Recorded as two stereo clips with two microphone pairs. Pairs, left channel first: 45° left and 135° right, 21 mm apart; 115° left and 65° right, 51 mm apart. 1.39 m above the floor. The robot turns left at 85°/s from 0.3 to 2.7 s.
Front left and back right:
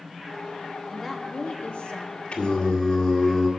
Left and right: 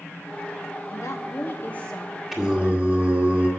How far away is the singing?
About 1.9 m.